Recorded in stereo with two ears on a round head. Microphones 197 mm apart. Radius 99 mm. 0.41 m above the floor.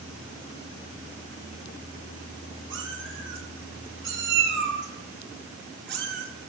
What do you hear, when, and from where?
2.7 s a cat meowing: 65° right (ahead or behind), 6 m; by 6.3 s 55° right (ahead or behind), 3.5 m